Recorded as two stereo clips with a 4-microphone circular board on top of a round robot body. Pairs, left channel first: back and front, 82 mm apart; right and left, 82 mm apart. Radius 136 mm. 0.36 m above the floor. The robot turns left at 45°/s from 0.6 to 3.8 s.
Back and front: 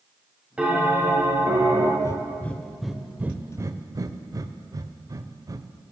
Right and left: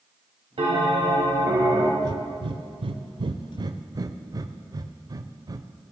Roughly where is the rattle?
I don't hear a rattle.